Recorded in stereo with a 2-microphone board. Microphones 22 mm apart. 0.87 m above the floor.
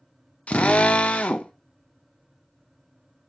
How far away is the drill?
About 0.6 m.